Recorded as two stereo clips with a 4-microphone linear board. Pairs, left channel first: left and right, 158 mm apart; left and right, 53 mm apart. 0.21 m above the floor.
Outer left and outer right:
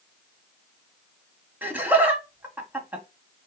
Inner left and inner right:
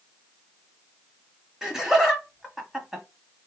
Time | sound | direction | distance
1.6 | laughter | 10° right (ahead or behind) | 1.7 m